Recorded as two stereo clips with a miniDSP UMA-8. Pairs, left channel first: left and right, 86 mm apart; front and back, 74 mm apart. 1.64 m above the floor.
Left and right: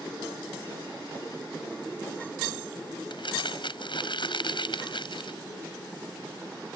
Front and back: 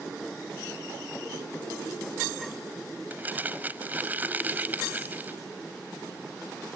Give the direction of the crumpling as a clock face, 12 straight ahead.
8 o'clock.